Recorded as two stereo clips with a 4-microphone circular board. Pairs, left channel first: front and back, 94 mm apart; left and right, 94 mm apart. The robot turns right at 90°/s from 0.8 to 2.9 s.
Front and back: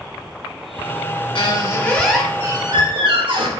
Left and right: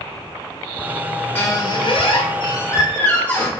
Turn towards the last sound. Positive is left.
turn(degrees=165)